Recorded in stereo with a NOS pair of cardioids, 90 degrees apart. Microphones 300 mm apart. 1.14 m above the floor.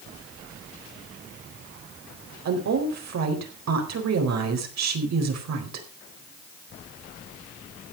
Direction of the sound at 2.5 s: 60° right.